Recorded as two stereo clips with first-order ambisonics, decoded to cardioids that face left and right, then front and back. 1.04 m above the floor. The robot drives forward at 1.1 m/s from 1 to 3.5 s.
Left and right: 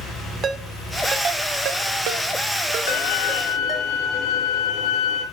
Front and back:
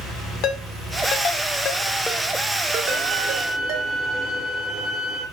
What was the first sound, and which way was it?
A ringtone, 30° right.